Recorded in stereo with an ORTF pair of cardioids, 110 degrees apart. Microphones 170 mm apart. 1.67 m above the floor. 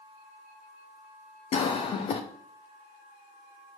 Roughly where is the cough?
Ahead left.